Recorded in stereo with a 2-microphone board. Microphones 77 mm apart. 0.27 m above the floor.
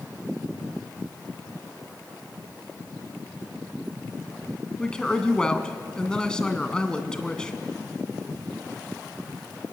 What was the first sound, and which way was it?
A woman speaking, 10° left (ahead or behind).